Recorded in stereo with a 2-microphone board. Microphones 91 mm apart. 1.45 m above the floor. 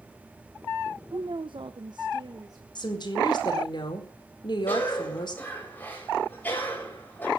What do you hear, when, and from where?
1.1 s a woman speaking: 70° right (ahead or behind), 0.8 m; by 2.6 s 45° right (ahead or behind), 1.3 m
2.8 s a woman speaking: 50° left (ahead or behind), 4 m
4.7 s a cough: 20° left (ahead or behind), 8 m